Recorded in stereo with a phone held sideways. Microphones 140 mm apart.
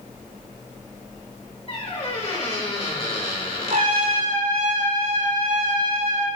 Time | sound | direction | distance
1.7 | a squeak | 45° left (ahead or behind) | 2.5 m
3.7 | a trumpet | 75° right (ahead or behind) | 5 m